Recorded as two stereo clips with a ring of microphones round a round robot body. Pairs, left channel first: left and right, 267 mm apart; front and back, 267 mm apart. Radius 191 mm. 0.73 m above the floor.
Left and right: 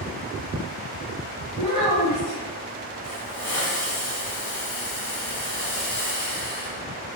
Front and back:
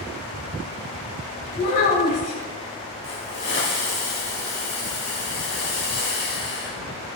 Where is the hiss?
45° left, 3 m.